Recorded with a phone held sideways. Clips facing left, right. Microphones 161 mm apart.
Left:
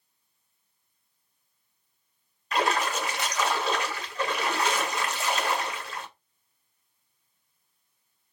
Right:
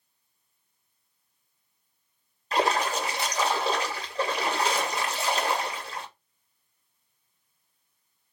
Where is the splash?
30° right (ahead or behind), 0.8 m.